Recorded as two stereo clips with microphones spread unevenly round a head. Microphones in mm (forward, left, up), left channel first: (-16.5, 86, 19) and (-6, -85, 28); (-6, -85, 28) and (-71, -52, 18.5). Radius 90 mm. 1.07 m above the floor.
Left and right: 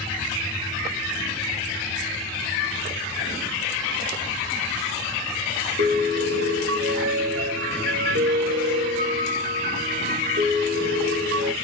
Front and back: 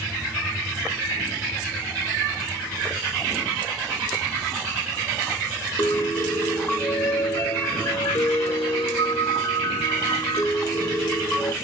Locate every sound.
5.8 s a piano: 60° right, 0.9 m